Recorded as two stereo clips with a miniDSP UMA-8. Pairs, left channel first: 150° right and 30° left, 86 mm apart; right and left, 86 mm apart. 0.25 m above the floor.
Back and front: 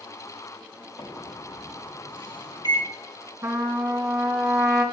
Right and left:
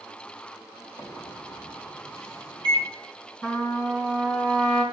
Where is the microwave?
125° right, 4.5 m.